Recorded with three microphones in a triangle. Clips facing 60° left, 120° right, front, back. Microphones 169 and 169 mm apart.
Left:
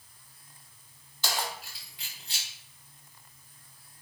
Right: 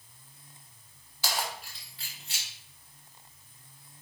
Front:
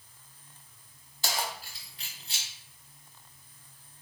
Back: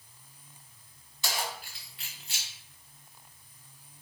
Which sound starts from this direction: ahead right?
Keys jangling, at 1.2 s.